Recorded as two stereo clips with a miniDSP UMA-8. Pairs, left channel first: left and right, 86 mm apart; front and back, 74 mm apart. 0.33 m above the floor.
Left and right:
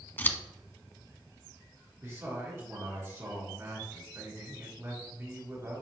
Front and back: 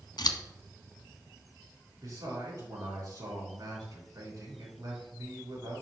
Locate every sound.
0.2 s scissors: 20° left, 0.7 m
2.0 s a man speaking: 145° right, 3.5 m